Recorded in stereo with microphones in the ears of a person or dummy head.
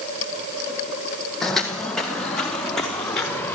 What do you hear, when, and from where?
1.4 s footsteps: 5° left (ahead or behind), 3.5 m